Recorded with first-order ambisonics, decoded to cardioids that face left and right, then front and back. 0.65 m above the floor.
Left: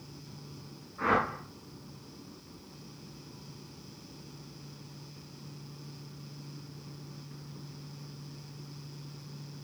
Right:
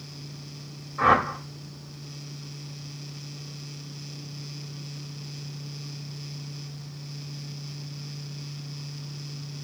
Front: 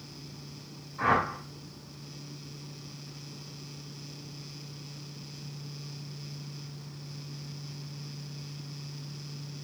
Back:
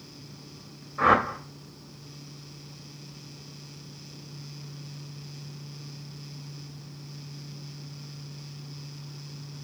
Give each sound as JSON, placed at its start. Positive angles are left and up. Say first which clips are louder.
{"t": 1.0, "sound": "a whoosh", "louder": "right 8 dB, back 5 dB", "azimuth_deg": -140, "distance_m": 2.0}